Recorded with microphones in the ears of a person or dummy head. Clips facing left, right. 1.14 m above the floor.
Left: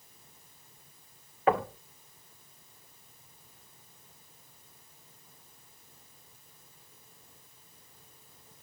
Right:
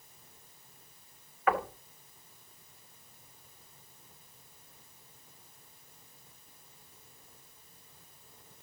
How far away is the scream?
No scream in this recording.